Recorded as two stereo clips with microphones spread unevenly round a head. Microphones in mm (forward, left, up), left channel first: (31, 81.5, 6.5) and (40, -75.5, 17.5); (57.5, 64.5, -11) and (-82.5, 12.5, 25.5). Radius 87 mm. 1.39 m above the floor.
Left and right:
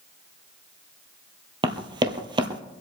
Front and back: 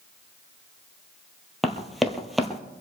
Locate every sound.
1.6 s running footsteps: 95° right, 1.5 m